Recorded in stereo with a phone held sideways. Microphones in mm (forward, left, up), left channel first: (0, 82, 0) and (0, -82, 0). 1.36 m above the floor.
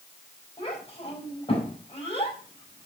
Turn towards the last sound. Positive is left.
turn(degrees=35)  # may be behind; listen again after turning